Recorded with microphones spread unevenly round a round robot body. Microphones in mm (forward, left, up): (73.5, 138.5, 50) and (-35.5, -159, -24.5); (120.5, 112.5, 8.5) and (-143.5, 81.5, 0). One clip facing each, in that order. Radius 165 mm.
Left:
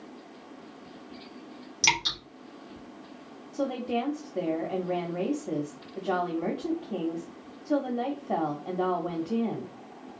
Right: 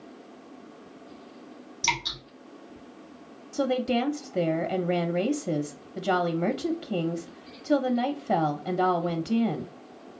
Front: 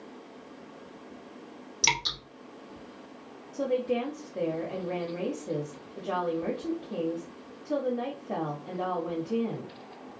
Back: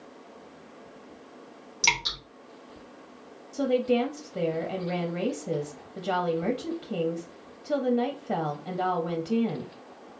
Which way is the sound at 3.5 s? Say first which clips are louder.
Right 4 dB, back 4 dB; 120° right.